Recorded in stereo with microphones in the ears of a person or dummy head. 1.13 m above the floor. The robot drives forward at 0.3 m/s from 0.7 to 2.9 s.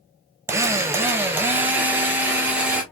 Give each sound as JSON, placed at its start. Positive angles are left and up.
{"t": 0.5, "sound": "a drill", "side_deg": -15, "distance_m": 0.7}